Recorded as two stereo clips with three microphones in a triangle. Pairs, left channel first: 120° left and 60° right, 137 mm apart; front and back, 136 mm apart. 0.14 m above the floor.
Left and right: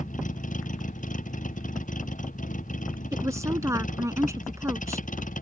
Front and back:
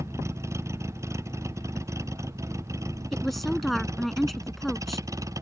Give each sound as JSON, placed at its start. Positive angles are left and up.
{"t": 0.0, "sound": "a vehicle", "azimuth_deg": 110}
{"t": 3.1, "sound": "a woman speaking", "azimuth_deg": -90}